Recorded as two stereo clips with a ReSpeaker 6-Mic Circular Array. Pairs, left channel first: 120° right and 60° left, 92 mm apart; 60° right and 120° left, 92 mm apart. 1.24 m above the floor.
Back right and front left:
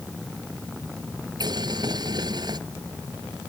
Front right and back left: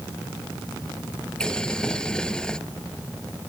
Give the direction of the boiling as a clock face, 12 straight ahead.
11 o'clock.